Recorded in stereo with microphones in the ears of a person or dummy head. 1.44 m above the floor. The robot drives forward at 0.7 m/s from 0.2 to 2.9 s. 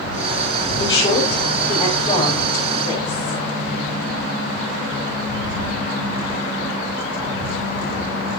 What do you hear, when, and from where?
0.8 s a woman speaking: 30° left (ahead or behind), 6.5 m; by 3.4 s 25° left (ahead or behind), 8 m